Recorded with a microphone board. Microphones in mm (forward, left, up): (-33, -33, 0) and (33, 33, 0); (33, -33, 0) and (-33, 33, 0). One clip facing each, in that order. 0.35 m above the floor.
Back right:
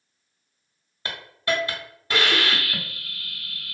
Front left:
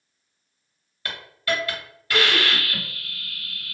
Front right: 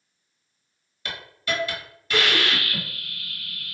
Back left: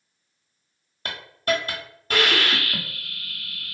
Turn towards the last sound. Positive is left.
turn(degrees=165)